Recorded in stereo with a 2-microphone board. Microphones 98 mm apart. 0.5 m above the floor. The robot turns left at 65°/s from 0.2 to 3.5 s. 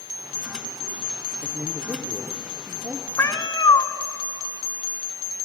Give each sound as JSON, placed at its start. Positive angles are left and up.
{"t": 1.4, "sound": "a man speaking", "azimuth_deg": -20, "distance_m": 0.9}
{"t": 3.2, "sound": "a cat meowing", "side_deg": 25, "distance_m": 0.8}